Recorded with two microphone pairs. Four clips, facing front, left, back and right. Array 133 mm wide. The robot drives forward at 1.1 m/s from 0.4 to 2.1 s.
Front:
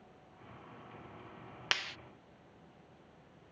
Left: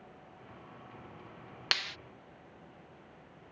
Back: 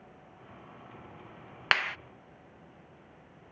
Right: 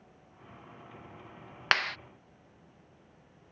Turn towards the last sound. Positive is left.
turn(degrees=-140)